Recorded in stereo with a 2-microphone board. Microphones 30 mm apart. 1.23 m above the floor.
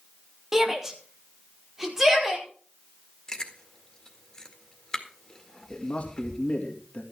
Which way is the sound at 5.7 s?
45° left (ahead or behind).